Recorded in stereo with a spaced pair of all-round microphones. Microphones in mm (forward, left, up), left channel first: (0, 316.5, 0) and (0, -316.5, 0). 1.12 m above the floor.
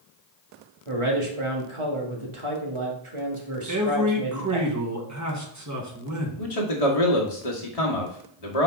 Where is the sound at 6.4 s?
70° left (ahead or behind), 1.5 m.